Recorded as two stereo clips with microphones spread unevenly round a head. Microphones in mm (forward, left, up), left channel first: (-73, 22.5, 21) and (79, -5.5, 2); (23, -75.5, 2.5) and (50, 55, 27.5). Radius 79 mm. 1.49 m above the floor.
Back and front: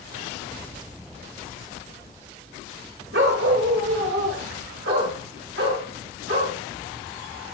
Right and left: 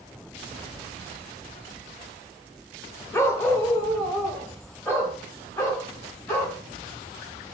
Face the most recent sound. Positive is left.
turn(degrees=-30)